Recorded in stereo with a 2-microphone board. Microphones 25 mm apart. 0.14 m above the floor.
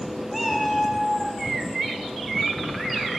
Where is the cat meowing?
5° right (ahead or behind), 0.8 m.